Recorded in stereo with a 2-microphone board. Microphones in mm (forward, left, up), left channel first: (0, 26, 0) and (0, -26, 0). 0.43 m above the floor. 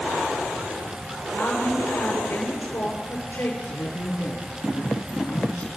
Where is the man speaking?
45° left (ahead or behind), 5.5 m.